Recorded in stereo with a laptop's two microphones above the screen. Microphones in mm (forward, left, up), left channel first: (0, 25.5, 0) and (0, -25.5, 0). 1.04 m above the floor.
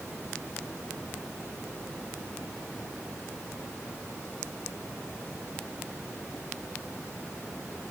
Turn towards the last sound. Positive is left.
No sound to turn to.